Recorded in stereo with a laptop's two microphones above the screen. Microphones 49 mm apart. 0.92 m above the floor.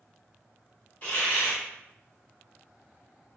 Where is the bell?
No bell in this recording.